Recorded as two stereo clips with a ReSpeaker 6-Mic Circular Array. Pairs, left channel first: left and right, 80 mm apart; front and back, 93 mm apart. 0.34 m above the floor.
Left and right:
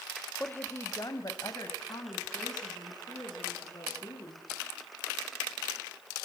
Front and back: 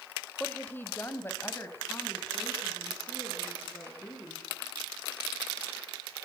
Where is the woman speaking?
55° left, 1.2 m; by 4.5 s 65° left, 6.5 m.